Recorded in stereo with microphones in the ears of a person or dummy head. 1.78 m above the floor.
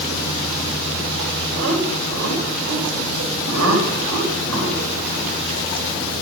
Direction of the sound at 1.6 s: 70° right (ahead or behind).